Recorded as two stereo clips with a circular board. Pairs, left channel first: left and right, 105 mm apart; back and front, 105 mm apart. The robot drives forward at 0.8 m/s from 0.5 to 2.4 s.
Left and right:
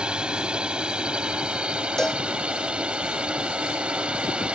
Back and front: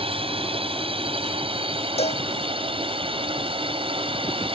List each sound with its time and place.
0.0 s a drone: 10° right
2.0 s a cowbell: 175° left